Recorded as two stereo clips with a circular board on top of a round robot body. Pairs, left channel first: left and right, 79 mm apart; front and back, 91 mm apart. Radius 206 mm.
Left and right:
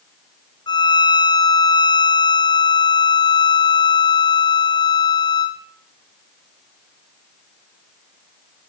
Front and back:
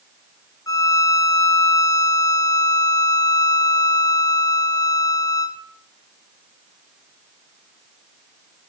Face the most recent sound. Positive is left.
turn(degrees=55)